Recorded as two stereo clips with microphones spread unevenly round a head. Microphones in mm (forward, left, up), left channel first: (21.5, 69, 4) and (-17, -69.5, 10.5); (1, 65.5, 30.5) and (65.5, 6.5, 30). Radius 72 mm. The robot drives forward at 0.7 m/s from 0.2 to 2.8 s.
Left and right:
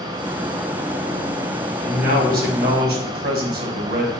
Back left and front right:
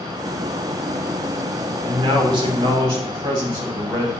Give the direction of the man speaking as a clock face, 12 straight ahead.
2 o'clock.